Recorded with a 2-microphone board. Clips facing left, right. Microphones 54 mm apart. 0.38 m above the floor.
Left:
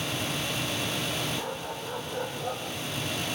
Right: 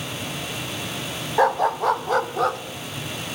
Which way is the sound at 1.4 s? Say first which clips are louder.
Right 15 dB; 70° right (ahead or behind).